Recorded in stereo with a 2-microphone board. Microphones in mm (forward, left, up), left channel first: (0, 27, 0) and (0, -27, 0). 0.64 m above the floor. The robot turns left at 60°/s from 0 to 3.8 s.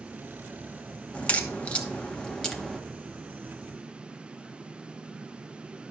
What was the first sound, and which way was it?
A crack, 25° left (ahead or behind).